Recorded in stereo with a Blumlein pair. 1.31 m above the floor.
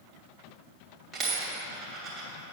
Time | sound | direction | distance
1.1 | a dropped coin | 25° right | 2.5 m